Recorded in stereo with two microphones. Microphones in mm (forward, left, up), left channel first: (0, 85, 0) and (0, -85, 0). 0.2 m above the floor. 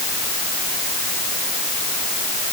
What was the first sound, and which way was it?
Only background noise.